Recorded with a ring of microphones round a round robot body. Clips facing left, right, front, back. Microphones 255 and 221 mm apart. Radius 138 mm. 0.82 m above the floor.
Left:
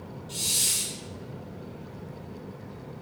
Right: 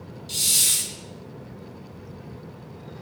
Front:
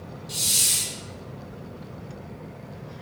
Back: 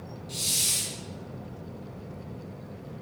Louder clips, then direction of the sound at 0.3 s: Even, front 1 dB; 75° right.